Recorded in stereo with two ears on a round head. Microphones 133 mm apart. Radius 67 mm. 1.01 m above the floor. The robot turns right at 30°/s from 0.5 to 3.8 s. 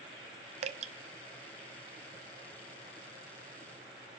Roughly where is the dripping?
Right.